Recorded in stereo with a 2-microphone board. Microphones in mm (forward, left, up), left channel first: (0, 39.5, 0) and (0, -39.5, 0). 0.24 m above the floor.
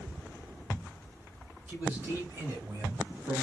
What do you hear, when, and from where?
1.7 s a man speaking: 15° right (ahead or behind), 1.1 m; by 3.4 s 40° right (ahead or behind), 1.3 m